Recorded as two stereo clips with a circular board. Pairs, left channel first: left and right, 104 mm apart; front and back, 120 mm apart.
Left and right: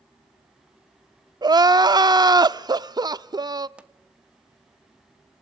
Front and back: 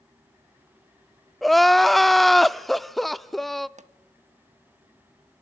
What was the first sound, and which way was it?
Crying, 85° right.